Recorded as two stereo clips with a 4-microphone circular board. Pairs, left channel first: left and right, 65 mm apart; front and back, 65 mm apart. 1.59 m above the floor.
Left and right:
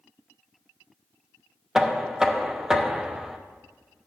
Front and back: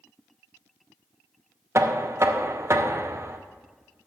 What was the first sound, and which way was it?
Knocking, 170° right.